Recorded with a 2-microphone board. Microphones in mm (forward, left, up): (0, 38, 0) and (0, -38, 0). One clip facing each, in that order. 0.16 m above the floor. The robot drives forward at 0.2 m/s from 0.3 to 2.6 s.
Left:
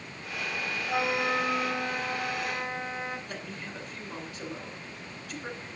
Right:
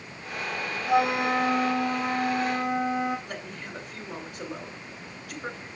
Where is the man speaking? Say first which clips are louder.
Right 2 dB; 50° right (ahead or behind), 2.5 m.